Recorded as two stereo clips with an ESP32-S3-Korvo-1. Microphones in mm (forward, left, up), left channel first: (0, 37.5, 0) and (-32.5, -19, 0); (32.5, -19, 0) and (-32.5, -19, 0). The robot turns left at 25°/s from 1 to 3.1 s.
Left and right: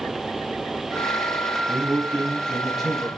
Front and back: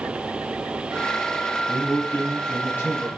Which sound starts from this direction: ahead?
A man speaking, at 1.7 s.